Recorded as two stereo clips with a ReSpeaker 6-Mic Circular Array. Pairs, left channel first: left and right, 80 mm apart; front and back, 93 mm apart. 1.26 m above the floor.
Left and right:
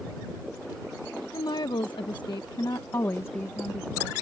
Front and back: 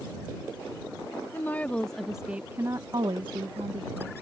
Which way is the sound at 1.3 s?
65° left.